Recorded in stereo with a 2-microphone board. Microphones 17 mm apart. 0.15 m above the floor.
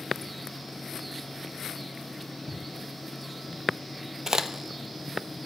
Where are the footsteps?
50° right (ahead or behind), 3 m; by 3.6 s 65° right (ahead or behind), 4 m.